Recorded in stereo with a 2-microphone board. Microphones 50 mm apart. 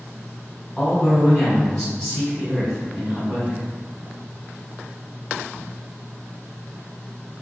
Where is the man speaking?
15° left (ahead or behind), 1.7 m.